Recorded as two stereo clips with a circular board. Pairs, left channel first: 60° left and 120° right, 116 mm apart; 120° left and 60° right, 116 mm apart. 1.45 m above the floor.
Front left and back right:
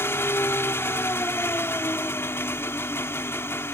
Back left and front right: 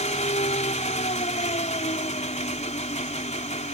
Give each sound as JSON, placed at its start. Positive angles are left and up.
{"t": 0.0, "sound": "an engine running", "azimuth_deg": 130}